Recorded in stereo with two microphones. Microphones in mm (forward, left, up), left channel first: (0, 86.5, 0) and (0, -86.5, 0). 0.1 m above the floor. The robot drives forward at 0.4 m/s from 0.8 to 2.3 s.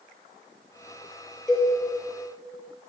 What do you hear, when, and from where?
1.5 s a cowbell: centre (ahead or behind), 2.5 m